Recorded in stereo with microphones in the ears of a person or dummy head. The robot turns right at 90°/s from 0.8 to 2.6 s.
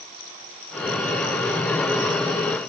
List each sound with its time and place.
Only background noise.